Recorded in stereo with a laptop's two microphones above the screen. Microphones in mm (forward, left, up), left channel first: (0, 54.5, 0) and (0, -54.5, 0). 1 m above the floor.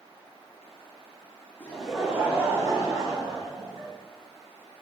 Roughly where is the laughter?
Centre.